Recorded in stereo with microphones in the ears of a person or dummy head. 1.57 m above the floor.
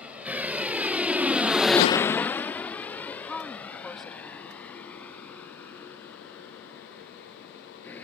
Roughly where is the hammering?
I don't hear hammering.